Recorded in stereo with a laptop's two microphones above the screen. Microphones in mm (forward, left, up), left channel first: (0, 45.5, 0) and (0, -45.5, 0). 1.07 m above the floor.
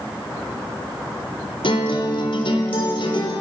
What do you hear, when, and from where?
1.6 s a guitar: 70° left (ahead or behind), 4 m